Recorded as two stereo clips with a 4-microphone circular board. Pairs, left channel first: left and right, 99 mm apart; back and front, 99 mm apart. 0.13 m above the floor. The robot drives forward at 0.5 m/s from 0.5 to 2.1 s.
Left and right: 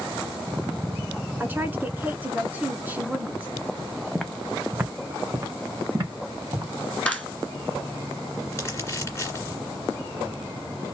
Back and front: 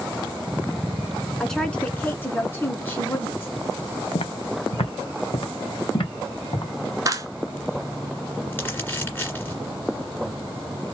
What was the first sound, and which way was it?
A woman speaking, 100° right.